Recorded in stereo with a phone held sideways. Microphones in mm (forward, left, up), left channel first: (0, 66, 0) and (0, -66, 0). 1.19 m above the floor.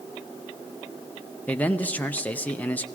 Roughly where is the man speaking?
Centre.